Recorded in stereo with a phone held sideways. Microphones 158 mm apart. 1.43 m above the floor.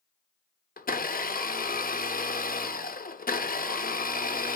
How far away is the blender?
About 0.5 m.